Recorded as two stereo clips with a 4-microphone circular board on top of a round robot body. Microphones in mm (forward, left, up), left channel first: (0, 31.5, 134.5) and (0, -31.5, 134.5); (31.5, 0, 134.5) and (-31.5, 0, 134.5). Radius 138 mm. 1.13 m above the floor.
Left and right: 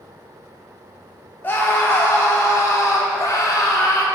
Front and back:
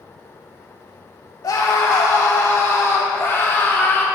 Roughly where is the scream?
Ahead left.